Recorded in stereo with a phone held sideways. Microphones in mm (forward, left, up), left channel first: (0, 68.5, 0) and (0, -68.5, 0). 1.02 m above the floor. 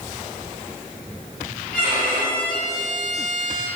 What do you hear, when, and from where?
1.7 s a violin: 70° left (ahead or behind), 2 m